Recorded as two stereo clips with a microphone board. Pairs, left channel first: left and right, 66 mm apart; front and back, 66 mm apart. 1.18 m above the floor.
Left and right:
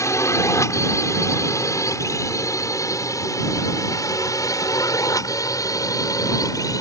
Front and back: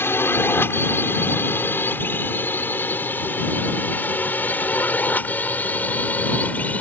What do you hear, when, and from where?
0.0 s a drone: 55° left; by 6.8 s 65° left